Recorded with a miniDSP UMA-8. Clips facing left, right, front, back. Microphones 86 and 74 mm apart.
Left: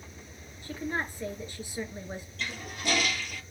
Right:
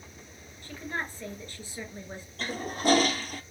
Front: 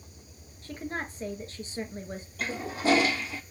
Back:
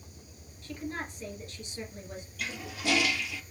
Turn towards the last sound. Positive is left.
turn(degrees=-50)